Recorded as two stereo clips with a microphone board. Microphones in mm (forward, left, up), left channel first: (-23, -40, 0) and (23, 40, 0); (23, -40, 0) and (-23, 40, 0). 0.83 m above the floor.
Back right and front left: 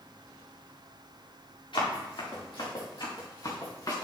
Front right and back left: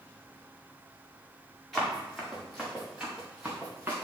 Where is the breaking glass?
I don't hear breaking glass.